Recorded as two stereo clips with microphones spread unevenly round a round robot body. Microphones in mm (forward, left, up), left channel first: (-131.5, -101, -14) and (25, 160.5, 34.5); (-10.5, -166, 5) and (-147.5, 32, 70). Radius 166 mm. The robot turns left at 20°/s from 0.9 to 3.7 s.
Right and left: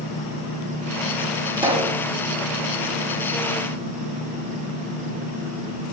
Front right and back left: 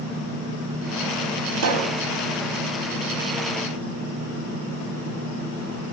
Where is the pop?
135° left, 1.6 m; by 2.0 s 125° left, 1.6 m.